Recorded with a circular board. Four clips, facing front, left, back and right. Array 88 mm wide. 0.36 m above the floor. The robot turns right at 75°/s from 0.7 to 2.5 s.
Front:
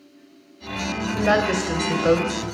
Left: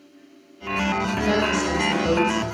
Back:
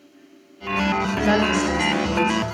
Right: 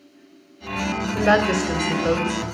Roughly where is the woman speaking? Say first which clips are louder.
Right 6 dB, front 2 dB; right.